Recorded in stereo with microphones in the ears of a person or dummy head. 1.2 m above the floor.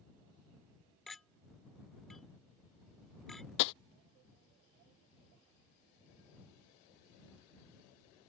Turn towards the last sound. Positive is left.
turn(degrees=70)  # may be behind; listen again after turning